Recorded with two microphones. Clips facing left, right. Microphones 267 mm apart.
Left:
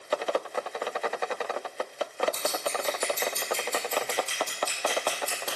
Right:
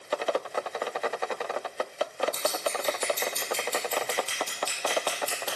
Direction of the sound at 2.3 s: 75° right (ahead or behind).